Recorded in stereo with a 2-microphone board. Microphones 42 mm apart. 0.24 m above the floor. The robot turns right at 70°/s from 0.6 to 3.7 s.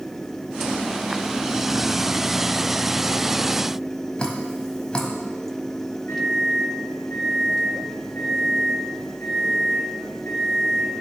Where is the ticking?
No ticking in this recording.